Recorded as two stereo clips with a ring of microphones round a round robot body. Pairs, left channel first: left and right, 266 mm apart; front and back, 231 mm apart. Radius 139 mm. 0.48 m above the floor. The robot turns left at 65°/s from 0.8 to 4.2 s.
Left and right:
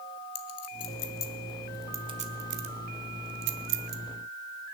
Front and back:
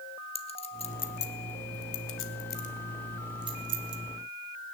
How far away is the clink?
About 1.3 m.